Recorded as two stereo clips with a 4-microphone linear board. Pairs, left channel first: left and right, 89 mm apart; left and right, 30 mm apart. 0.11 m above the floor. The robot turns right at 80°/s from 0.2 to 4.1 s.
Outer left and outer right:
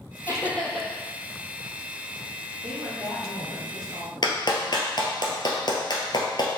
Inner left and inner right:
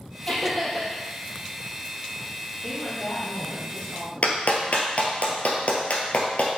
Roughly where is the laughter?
Behind left.